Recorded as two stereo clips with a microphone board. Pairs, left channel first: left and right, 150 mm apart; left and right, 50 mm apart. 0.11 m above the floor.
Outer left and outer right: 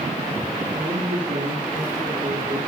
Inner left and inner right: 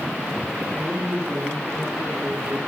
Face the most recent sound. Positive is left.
turn(degrees=-80)